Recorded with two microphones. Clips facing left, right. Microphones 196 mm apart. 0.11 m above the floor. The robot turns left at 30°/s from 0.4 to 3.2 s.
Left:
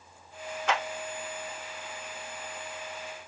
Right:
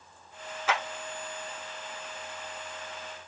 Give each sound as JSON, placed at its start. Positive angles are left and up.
{"t": 0.7, "sound": "a clap", "side_deg": -5, "distance_m": 1.0}